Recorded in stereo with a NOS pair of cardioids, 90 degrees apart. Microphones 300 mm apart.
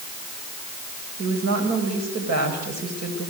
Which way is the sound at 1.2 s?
60° right.